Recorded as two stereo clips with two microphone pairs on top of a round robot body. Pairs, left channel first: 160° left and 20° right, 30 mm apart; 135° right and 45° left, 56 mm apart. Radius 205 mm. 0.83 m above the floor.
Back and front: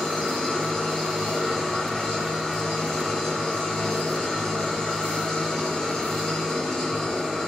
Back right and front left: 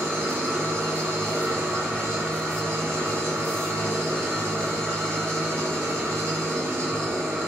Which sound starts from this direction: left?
An engine running, at 0.0 s.